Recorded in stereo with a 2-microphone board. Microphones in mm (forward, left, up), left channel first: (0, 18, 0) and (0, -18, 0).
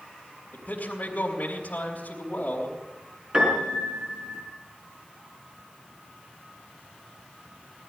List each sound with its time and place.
0.5 s a man speaking: 50° left (ahead or behind), 3 m
3.3 s a piano: 25° right (ahead or behind), 5 m